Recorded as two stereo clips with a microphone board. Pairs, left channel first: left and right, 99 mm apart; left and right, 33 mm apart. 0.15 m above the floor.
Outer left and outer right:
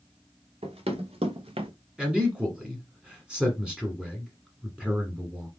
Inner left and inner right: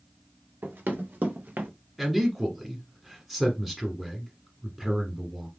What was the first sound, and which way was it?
Running footsteps, 90° right.